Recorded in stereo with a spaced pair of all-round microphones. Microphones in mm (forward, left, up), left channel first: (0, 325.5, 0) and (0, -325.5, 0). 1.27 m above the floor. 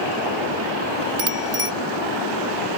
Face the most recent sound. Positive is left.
turn(degrees=-55)  # may be behind; listen again after turning